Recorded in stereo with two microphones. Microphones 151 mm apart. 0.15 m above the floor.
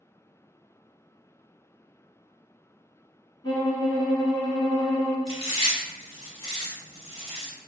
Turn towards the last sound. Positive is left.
turn(degrees=35)  # may be behind; listen again after turning